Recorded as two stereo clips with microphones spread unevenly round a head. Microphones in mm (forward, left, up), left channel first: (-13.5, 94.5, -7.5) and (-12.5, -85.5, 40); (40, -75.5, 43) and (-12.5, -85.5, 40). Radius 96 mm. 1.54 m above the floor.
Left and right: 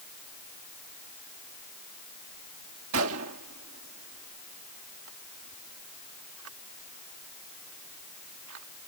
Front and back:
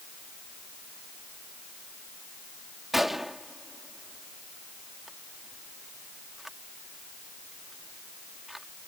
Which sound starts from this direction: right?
A gunshot, at 2.9 s.